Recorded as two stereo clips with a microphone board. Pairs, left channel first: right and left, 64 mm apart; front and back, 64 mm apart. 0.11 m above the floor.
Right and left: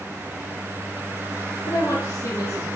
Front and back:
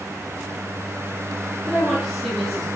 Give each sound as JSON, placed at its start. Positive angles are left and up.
{"t": 1.7, "sound": "a woman speaking", "azimuth_deg": -90, "distance_m": 3.5}